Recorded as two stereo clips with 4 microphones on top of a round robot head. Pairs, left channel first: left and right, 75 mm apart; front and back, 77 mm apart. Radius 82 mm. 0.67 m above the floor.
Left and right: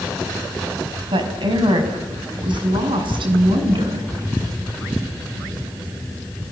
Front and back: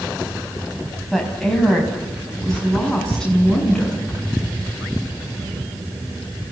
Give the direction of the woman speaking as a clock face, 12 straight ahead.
3 o'clock.